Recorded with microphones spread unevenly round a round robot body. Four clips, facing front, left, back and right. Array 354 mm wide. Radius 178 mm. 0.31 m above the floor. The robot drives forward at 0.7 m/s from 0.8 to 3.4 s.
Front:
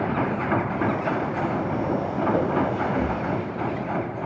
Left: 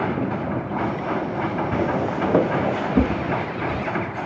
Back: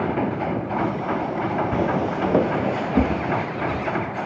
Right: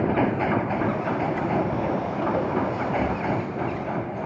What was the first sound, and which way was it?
Footsteps, 150° left.